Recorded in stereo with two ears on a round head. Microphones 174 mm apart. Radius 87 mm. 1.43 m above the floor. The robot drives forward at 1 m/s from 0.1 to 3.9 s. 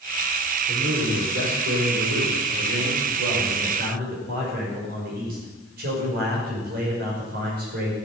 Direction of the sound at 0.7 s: 85° right.